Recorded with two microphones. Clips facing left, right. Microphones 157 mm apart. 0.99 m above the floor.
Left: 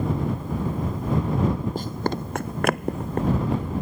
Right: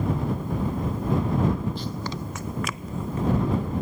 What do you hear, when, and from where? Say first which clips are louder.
1.8 s running footsteps: left 5 dB; 50° left (ahead or behind); by 3.7 s 65° left (ahead or behind)